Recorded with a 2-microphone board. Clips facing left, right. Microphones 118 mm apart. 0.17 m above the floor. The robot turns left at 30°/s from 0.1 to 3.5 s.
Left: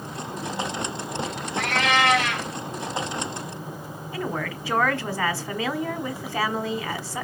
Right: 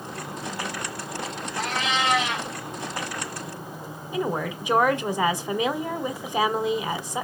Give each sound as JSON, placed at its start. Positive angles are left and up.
{"t": 1.6, "sound": "a cat meowing", "side_deg": 70, "distance_m": 1.9}
{"t": 4.1, "sound": "a woman speaking", "side_deg": -20, "distance_m": 1.2}